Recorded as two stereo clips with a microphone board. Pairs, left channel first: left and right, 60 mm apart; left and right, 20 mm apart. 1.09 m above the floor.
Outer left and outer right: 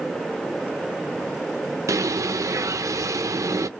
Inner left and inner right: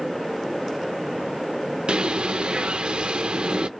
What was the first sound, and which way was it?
A bird, 60° right (ahead or behind).